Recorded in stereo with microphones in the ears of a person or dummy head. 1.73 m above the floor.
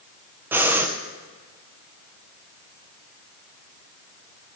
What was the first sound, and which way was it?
Breathing, 10° right (ahead or behind).